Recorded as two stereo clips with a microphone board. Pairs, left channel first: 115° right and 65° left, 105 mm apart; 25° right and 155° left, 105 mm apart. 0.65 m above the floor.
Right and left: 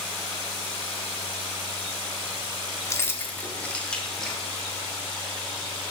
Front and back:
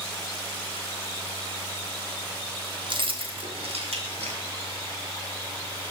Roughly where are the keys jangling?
Behind.